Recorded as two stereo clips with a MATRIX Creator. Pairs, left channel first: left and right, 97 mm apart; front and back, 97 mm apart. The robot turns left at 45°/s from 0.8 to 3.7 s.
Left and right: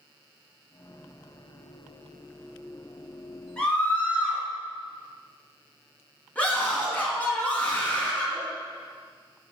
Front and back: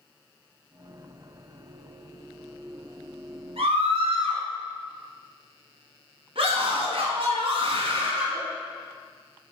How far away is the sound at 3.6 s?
About 3.5 m.